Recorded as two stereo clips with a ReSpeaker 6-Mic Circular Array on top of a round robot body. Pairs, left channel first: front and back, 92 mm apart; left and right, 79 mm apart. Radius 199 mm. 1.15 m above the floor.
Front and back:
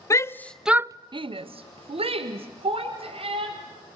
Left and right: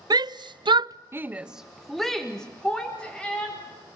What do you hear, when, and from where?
0.1 s a shout: 55° right, 1.0 m; by 3.5 s 165° left, 3 m